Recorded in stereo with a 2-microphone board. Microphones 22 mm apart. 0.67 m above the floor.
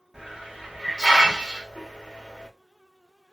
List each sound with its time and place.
0.1 s a hiss: 45° right (ahead or behind), 1.2 m